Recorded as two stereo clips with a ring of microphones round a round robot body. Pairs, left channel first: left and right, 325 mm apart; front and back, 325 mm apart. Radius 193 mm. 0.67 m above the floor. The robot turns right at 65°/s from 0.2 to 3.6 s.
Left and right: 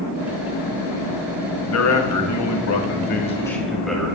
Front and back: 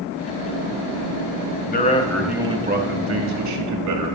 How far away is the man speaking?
About 1.8 m.